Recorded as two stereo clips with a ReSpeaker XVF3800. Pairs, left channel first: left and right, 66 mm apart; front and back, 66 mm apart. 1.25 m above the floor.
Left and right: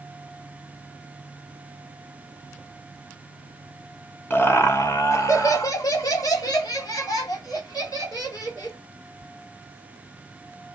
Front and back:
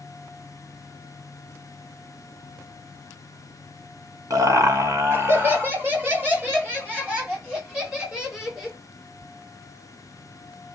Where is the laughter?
145° left, 0.9 m; by 8.8 s 105° left, 3 m.